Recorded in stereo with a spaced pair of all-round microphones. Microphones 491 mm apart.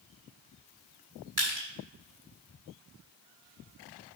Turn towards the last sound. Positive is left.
turn(degrees=-40)  # may be behind; listen again after turning